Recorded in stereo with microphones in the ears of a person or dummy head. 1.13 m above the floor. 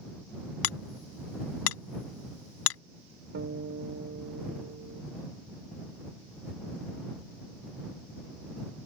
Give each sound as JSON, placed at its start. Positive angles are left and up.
{"t": 0.6, "sound": "hammering", "side_deg": 80}
{"t": 3.3, "sound": "a guitar", "side_deg": -60}